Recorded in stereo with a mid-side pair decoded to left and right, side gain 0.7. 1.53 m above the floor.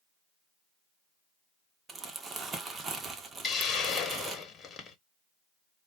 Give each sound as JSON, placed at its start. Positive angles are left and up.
{"t": 1.9, "sound": "crumpling", "azimuth_deg": -25, "distance_m": 1.0}
{"t": 3.4, "sound": "a hiss", "azimuth_deg": 35, "distance_m": 1.1}